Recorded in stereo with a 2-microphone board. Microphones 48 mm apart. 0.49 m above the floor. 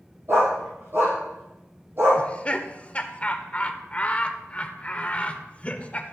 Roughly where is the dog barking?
Right.